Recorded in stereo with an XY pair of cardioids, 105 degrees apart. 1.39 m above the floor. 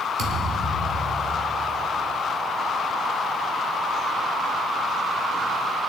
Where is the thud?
60° right, 2 m.